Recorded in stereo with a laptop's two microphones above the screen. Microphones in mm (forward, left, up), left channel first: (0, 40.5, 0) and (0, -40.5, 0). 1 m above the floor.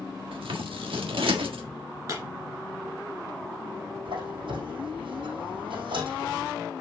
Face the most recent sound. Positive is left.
turn(degrees=-75)  # may be behind; listen again after turning